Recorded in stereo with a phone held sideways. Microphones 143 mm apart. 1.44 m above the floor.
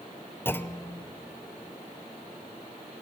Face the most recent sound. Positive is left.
turn(degrees=15)  # may be behind; listen again after turning